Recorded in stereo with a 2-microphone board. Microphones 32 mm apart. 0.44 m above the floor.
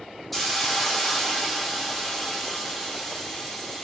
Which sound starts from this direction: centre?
A hiss, at 0.3 s.